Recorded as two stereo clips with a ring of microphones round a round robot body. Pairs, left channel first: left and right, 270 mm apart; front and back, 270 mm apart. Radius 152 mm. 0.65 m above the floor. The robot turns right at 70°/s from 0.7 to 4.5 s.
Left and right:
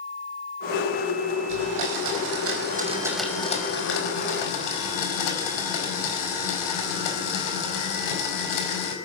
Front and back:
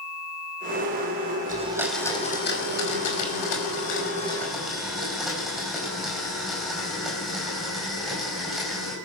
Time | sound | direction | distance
1.5 | a blender | 120° right | 5 m